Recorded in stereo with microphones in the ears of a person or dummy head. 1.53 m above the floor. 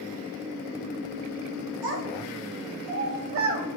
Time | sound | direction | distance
1.8 | a child speaking | 75° right (ahead or behind) | 5.5 m